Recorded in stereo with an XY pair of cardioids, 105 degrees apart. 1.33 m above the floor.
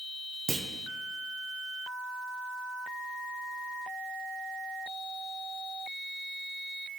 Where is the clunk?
35° right, 0.5 m.